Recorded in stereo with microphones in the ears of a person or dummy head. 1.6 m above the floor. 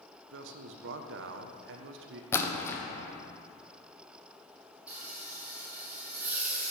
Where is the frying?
10° right (ahead or behind), 1.7 m.